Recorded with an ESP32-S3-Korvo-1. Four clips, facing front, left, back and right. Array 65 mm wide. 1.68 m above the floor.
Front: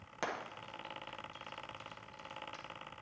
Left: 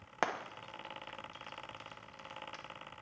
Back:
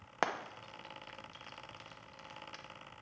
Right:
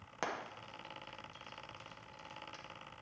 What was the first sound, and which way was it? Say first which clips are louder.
Frying: left 5 dB, back 4 dB; 140° left.